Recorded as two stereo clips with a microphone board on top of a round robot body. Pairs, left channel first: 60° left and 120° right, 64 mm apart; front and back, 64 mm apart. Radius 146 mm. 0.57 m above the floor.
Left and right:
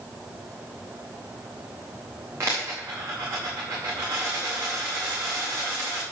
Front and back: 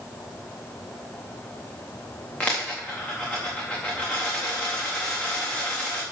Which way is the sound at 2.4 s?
65° right.